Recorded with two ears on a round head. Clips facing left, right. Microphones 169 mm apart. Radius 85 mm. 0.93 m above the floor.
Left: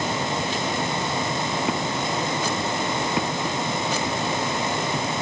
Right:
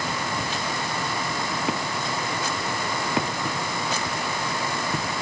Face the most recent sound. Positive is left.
No sound to turn to.